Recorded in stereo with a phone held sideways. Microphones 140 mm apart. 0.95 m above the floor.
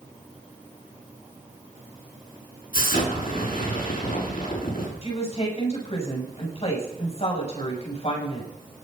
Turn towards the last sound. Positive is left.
turn(degrees=45)  # may be behind; listen again after turning